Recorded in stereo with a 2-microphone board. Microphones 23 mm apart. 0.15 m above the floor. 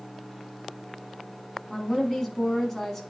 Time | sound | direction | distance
1.7 | a woman speaking | 10° left (ahead or behind) | 1.0 m